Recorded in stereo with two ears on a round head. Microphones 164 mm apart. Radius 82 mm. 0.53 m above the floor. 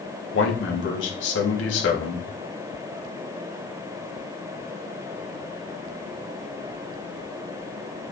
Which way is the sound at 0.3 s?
75° left (ahead or behind).